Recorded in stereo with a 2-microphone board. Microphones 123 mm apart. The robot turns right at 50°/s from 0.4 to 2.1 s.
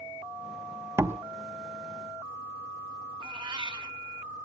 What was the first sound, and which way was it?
A door slam, 20° right (ahead or behind).